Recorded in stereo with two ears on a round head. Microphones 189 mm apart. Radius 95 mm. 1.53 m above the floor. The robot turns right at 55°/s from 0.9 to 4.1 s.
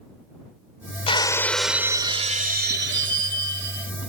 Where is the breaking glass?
150° left; by 3.9 s 55° right.